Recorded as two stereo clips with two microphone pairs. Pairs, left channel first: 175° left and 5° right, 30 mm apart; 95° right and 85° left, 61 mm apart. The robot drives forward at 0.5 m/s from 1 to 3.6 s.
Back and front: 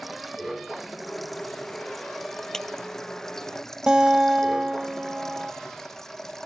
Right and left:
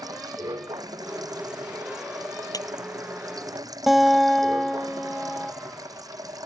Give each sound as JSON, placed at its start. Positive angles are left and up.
{"t": 0.0, "sound": "running water", "azimuth_deg": 85}
{"t": 2.5, "sound": "a clap", "azimuth_deg": -110}
{"t": 3.9, "sound": "a guitar", "azimuth_deg": 5}